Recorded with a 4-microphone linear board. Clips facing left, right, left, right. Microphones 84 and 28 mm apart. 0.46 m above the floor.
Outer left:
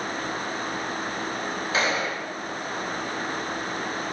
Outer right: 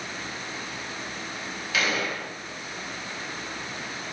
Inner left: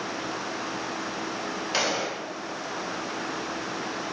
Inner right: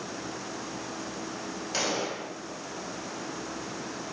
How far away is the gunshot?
About 2 m.